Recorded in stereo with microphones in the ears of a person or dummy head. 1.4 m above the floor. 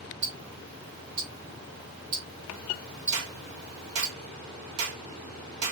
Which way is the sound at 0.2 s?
20° right (ahead or behind).